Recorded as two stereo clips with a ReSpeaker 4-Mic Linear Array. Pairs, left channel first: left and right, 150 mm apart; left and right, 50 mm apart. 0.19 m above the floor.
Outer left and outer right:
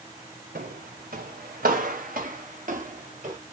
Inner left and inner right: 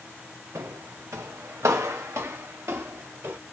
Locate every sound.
0.6 s footsteps: 80° right, 1.2 m; by 3.4 s 55° right (ahead or behind), 2.5 m